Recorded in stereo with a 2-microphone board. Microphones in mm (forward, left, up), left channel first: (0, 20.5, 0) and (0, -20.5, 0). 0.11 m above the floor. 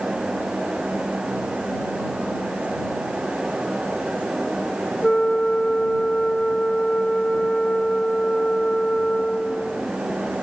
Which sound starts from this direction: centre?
A flute, at 5.0 s.